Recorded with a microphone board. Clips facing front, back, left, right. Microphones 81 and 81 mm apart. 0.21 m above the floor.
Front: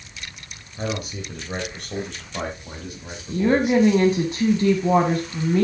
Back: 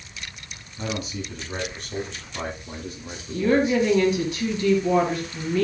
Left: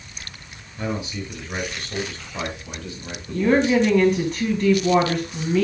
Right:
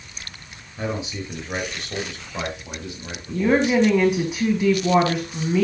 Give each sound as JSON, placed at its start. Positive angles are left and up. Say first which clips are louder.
{"t": 0.8, "sound": "a man speaking", "louder": "front 2 dB, even", "azimuth_deg": -25, "distance_m": 4.0}
{"t": 3.3, "sound": "a woman speaking", "louder": "front 2 dB, left 1 dB", "azimuth_deg": -15, "distance_m": 1.3}